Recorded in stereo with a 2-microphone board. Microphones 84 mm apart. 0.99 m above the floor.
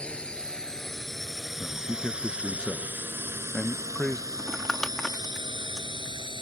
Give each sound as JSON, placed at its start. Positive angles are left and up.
{"t": 0.0, "sound": "a drone", "side_deg": 10}
{"t": 1.6, "sound": "a man speaking", "side_deg": 5}
{"t": 4.4, "sound": "crumpling", "side_deg": 5}